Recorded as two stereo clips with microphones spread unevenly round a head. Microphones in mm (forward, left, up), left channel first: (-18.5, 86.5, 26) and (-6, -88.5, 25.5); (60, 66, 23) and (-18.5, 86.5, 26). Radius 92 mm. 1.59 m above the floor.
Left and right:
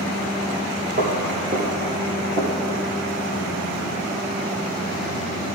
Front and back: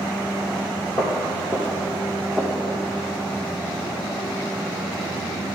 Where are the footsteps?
100° right, 2 m; by 2.8 s 125° right, 2.5 m.